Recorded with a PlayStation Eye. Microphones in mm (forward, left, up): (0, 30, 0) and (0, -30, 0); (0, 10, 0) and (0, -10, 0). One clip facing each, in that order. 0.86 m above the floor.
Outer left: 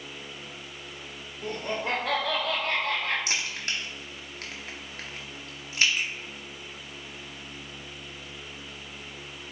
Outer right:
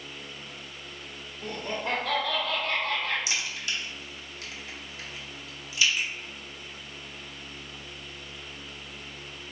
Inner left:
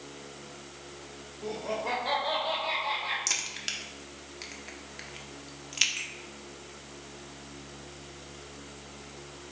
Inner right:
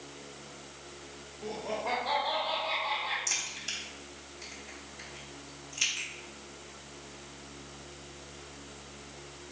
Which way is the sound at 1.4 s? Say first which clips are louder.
Outer left 2 dB, inner left 2 dB; 5° left (ahead or behind).